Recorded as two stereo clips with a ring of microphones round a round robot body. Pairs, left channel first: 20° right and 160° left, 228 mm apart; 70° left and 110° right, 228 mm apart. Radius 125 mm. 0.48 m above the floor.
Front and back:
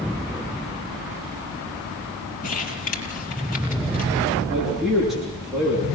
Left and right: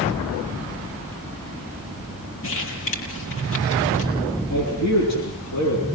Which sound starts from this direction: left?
A man speaking, at 4.5 s.